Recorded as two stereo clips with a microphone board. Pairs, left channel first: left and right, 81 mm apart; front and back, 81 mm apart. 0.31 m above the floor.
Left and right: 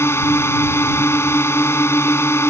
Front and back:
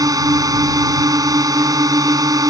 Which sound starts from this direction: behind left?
A drone, at 0.0 s.